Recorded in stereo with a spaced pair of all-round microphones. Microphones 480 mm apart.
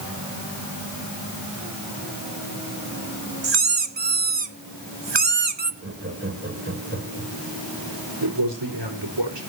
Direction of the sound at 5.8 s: 25° right (ahead or behind).